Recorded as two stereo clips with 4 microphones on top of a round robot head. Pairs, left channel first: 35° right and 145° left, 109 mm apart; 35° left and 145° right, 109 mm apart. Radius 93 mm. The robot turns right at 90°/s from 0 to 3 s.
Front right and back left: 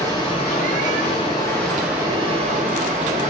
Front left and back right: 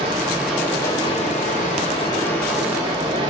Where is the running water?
105° right, 0.9 m; by 3.3 s 165° left, 0.9 m.